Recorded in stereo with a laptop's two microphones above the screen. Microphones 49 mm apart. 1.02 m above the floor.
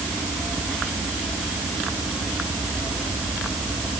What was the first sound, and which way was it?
Only background noise.